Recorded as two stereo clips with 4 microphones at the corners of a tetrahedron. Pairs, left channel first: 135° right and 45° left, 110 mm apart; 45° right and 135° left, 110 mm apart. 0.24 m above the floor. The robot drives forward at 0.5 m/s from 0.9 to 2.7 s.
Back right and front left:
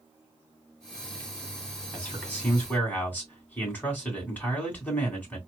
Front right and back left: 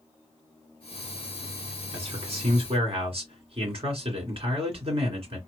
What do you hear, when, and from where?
1.9 s a man speaking: 145° left, 2 m; by 5.4 s 150° left, 2.5 m